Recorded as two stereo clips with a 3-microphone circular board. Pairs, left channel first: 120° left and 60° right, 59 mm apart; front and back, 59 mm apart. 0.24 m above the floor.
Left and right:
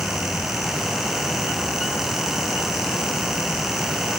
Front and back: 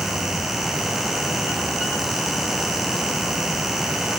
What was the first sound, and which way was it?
Only background noise.